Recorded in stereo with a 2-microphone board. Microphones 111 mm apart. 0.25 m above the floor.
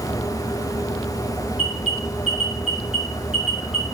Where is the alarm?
55° left (ahead or behind), 3 m.